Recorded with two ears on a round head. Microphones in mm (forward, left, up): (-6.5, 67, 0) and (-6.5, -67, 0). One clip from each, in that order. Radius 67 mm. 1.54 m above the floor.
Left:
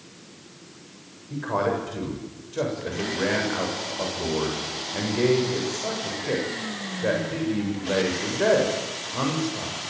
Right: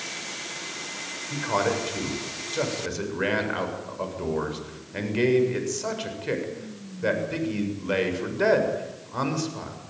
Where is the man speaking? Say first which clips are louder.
Even; 60° right (ahead or behind), 7 m.